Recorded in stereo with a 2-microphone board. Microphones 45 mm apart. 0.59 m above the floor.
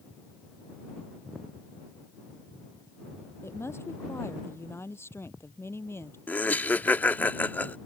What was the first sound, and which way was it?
A woman speaking, 70° left (ahead or behind).